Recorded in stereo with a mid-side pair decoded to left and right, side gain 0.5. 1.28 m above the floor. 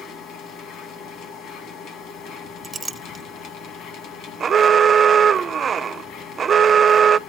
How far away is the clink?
About 0.8 m.